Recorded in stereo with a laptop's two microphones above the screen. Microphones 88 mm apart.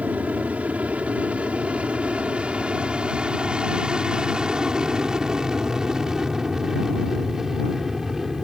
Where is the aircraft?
15° right (ahead or behind); by 8.4 s 5° right (ahead or behind).